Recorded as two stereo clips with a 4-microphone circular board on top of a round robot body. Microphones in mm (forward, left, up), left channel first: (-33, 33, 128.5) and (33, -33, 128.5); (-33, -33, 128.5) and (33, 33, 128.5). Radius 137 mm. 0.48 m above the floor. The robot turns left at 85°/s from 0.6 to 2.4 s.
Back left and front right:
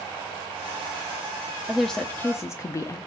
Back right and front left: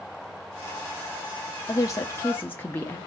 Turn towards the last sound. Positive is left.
turn(degrees=170)